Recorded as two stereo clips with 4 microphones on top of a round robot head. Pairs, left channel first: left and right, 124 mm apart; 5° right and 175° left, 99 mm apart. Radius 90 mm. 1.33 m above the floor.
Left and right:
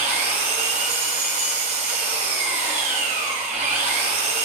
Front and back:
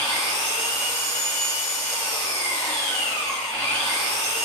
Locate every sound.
0.0 s an engine running: 70° right, 0.9 m